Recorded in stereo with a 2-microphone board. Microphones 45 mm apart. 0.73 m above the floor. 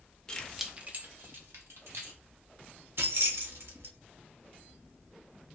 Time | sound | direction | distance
0.3 | keys jangling | 20° left (ahead or behind) | 0.6 m
3.0 | keys jangling | 65° right (ahead or behind) | 0.7 m